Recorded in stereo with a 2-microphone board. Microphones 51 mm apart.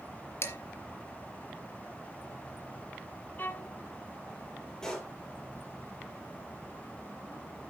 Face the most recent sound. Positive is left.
turn(degrees=10)  # may be behind; listen again after turning